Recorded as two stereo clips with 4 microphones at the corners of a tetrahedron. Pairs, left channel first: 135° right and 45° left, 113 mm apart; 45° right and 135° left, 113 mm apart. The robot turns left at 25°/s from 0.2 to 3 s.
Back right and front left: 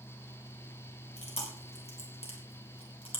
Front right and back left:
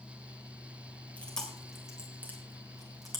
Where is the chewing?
125° right, 3.5 m; by 3.2 s 170° right, 3.5 m.